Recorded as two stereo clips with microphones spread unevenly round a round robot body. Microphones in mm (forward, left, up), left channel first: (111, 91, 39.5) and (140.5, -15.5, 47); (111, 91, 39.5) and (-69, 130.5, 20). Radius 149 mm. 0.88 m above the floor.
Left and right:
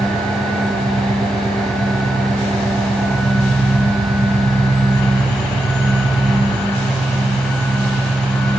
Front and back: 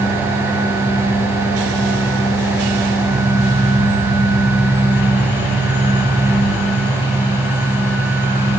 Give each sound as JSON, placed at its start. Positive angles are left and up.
{"t": 0.0, "sound": "an engine running", "azimuth_deg": -110, "distance_m": 4.0}